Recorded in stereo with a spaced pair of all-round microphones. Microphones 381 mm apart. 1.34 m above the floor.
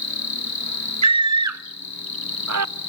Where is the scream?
45° right (ahead or behind), 0.6 m.